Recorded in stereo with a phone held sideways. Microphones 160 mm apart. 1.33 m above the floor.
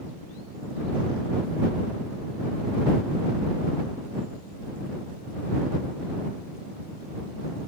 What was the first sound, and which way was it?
Only background noise.